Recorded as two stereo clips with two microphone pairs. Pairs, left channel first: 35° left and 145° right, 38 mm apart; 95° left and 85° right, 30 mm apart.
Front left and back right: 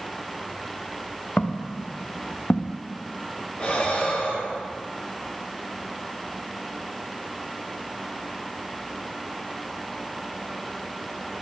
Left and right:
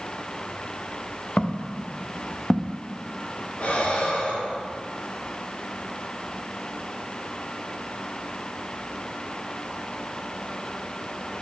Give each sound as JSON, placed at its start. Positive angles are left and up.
{"t": 1.4, "sound": "footsteps", "azimuth_deg": 75, "distance_m": 1.2}
{"t": 3.6, "sound": "breathing", "azimuth_deg": 90, "distance_m": 4.0}